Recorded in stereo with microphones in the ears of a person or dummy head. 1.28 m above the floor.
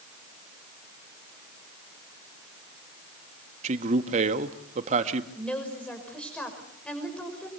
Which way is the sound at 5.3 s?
10° left (ahead or behind).